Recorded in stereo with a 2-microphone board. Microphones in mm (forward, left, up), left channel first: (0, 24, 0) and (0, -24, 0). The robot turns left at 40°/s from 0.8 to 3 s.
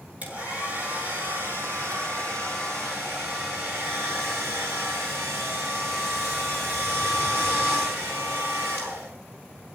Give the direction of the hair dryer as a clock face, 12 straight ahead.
1 o'clock.